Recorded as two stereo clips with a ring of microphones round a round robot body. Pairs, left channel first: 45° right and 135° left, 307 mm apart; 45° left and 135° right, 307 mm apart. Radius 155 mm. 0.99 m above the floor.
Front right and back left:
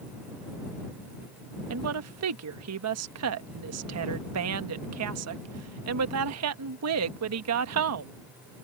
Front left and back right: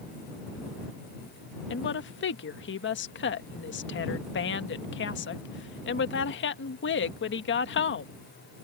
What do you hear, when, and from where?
1.7 s a woman speaking: 100° left